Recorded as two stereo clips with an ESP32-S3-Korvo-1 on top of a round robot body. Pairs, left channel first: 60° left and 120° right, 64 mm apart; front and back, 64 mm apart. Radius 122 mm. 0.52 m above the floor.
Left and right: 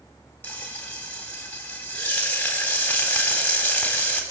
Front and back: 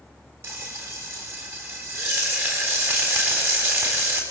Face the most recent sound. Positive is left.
turn(degrees=125)